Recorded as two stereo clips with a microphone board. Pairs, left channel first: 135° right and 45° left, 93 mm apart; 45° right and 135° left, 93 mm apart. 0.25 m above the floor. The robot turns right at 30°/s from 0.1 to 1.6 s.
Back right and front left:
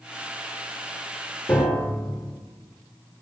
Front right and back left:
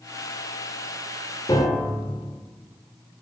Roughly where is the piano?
Ahead right.